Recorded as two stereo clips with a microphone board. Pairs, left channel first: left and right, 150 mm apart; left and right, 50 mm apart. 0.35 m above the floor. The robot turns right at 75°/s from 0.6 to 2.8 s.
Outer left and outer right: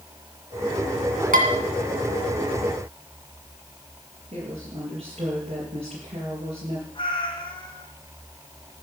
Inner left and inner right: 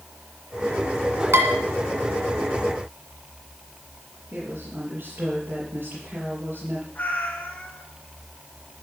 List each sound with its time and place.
1.3 s dishes clattering: 75° right (ahead or behind), 2 m; by 1.5 s 65° right (ahead or behind), 2 m
4.3 s a woman speaking: 60° right (ahead or behind), 5.5 m
7.0 s a cat meowing: 35° left (ahead or behind), 2.5 m